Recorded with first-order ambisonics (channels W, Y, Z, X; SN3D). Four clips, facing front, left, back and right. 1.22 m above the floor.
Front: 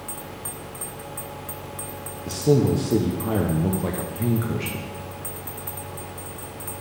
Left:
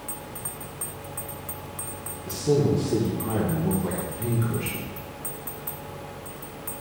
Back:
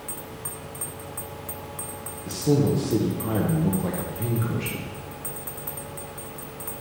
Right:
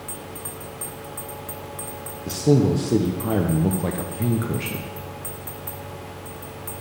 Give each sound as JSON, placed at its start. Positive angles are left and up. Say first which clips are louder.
{"t": 2.3, "sound": "a man speaking", "louder": "right 4 dB, front 2 dB", "azimuth_deg": -65, "distance_m": 0.7}